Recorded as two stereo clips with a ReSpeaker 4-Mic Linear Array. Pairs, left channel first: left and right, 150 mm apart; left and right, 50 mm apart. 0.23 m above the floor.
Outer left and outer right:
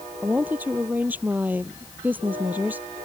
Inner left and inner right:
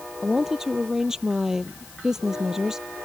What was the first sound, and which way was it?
A woman speaking, 10° right (ahead or behind).